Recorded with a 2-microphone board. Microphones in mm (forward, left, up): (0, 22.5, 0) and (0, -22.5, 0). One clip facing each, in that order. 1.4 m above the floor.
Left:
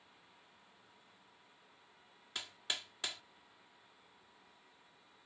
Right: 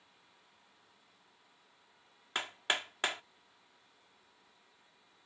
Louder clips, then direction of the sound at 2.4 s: Right 8 dB; 50° right (ahead or behind).